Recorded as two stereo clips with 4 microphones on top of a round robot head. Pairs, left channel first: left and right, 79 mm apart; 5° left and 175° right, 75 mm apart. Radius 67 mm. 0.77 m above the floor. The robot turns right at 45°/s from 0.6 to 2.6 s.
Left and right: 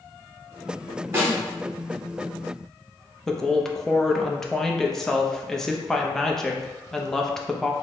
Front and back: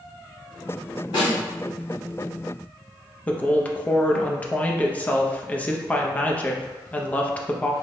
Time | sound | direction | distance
1.1 | a snare drum | 35° right | 1.8 m
3.3 | a woman speaking | 15° left | 0.5 m